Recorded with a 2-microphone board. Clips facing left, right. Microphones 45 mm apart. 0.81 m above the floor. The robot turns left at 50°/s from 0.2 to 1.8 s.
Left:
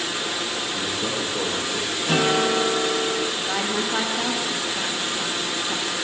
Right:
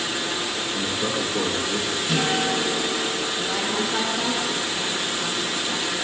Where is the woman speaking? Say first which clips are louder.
Even; 15° left (ahead or behind), 0.7 m.